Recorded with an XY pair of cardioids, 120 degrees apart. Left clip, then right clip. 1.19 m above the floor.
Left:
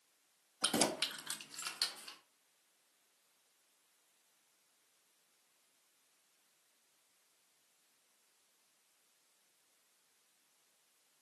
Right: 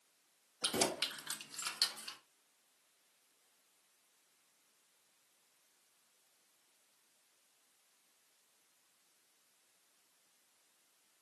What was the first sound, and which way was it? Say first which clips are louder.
Keys jangling: left 1 dB; 35° left.